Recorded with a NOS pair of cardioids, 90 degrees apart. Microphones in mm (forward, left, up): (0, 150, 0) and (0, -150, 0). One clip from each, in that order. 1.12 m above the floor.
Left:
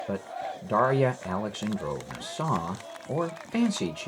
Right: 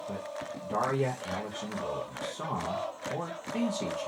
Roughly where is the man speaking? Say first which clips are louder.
Left 4 dB; ahead left.